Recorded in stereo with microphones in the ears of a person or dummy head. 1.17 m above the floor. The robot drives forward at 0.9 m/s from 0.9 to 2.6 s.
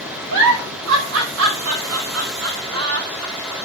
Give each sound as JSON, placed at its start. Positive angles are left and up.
{"t": 0.3, "sound": "a giggle", "side_deg": -80, "distance_m": 5.5}